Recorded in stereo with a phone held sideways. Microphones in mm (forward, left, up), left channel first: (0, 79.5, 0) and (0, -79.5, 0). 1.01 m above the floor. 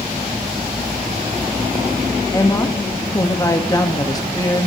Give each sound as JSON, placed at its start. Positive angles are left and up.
{"t": 2.3, "sound": "a woman speaking", "side_deg": 25, "distance_m": 1.4}